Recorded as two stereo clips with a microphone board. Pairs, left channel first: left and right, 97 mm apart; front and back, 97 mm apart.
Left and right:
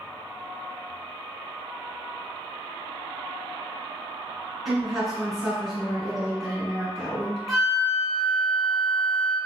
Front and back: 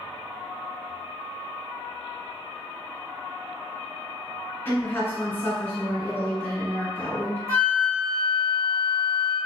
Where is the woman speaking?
Straight ahead, 1.7 m.